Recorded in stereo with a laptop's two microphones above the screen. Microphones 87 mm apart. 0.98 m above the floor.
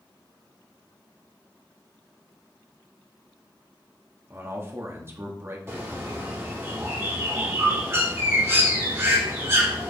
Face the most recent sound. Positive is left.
turn(degrees=-30)  # may be behind; listen again after turning